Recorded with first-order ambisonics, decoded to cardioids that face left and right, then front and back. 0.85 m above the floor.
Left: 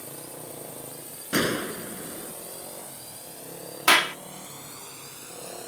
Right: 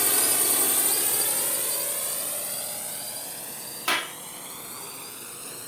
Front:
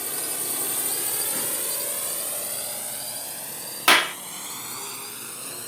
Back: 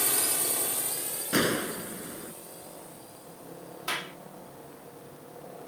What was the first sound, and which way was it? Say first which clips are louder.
A drone: right 15 dB, back 2 dB; 110° right.